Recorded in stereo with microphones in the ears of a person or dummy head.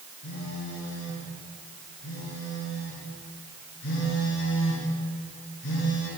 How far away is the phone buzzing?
About 6 m.